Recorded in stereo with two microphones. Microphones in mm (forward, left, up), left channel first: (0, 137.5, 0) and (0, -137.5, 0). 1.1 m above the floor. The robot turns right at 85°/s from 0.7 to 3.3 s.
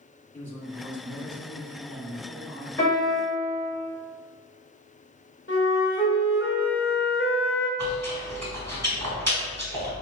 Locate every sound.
0.3 s a man speaking: 10° left, 1.8 m; by 2.7 s 175° left, 1.8 m
2.8 s a piano: 170° left, 1.6 m; by 3.7 s 150° right, 1.6 m
5.5 s a flute: 45° left (ahead or behind), 1.3 m
7.8 s chewing: 70° right (ahead or behind), 1.5 m